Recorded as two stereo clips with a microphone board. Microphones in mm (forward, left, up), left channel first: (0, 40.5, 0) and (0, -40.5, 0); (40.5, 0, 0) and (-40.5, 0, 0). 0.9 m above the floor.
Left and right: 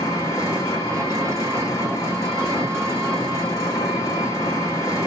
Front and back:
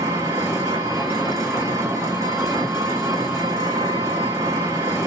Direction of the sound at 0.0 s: 130° left.